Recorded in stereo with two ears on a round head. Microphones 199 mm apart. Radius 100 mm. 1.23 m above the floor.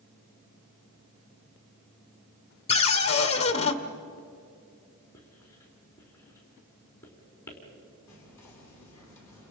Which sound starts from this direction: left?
A cupboard door, at 2.7 s.